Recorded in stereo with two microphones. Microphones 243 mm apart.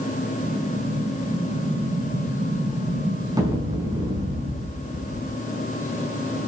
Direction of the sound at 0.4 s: 15° right (ahead or behind).